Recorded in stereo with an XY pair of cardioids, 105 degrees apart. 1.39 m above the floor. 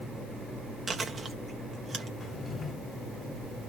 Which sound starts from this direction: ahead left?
A drawer, at 2.2 s.